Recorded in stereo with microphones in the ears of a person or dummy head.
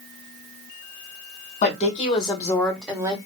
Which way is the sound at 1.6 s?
50° left (ahead or behind).